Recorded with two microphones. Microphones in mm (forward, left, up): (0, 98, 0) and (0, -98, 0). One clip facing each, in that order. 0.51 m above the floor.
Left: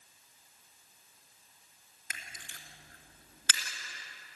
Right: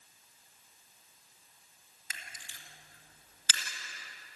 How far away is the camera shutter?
About 3 m.